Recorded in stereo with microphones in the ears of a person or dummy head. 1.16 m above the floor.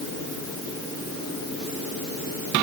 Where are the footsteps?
No footsteps in this recording.